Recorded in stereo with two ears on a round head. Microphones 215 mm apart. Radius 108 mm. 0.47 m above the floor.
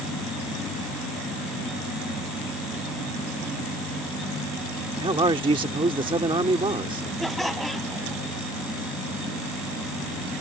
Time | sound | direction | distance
5.0 | a man speaking | 20° right (ahead or behind) | ?
7.2 | laughter | centre (ahead or behind) | ?